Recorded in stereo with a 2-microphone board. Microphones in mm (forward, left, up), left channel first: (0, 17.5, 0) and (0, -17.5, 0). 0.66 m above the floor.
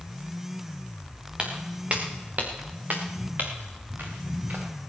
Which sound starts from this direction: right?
Footsteps, at 1.4 s.